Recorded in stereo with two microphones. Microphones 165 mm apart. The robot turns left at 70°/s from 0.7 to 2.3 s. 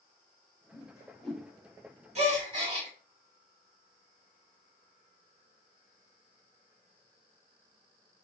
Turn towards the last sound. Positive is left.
turn(degrees=-35)  # may be behind; listen again after turning